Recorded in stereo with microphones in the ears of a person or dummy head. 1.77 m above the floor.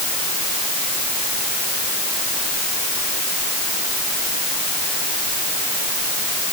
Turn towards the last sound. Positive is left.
No sound to turn to.